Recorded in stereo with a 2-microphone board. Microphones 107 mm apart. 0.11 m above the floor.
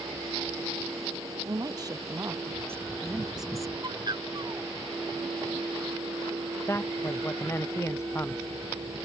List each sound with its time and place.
1.4 s a woman speaking: 40° right (ahead or behind); by 3.7 s 5° left (ahead or behind)
3.8 s a bird: 40° right (ahead or behind)
6.7 s a man speaking: 25° left (ahead or behind)